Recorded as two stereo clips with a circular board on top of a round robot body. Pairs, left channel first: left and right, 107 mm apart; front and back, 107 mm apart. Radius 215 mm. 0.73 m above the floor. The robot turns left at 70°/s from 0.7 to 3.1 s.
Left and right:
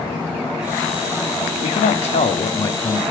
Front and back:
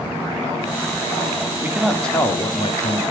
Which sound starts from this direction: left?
A man speaking, at 1.6 s.